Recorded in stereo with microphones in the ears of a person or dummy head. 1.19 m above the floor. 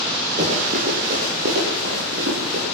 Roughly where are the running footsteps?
Right.